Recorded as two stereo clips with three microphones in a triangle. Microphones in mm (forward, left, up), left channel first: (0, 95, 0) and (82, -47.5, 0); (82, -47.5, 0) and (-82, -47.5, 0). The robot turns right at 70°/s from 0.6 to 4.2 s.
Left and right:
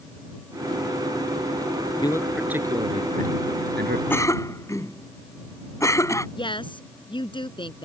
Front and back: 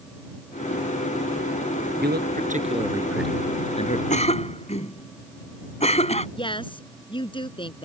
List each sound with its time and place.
2.0 s a man speaking: 175° right; by 4.0 s 35° right
4.1 s a cough: 40° left; by 6.3 s 50° left
6.4 s a woman speaking: 60° left